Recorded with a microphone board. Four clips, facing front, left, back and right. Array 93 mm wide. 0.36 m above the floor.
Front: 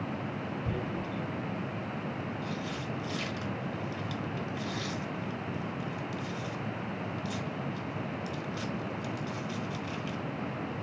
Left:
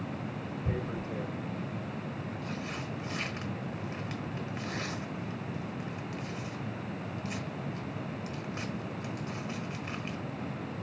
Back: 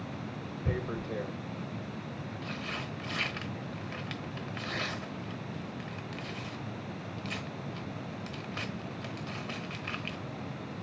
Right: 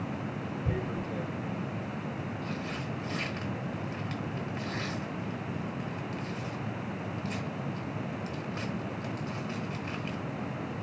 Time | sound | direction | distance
0.7 | tearing paper | 175° left | 1.2 m